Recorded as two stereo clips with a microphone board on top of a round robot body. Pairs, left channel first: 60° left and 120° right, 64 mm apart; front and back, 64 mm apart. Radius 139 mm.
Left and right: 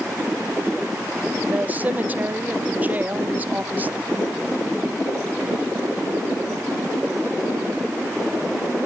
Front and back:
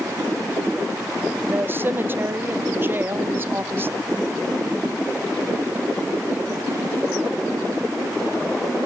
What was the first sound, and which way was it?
A woman speaking, 160° right.